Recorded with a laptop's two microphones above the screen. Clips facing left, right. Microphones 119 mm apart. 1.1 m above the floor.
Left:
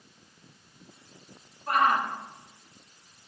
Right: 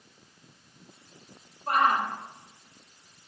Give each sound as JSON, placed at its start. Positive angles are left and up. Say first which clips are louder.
{"t": 1.7, "sound": "a shout", "louder": "even", "side_deg": -35, "distance_m": 5.0}